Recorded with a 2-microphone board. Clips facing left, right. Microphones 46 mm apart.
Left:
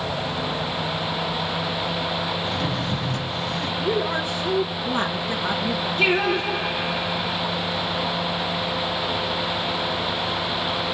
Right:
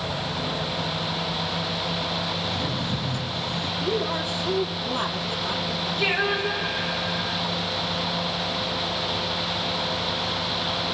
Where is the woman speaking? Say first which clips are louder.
Left 3 dB; 65° left (ahead or behind), 3 m.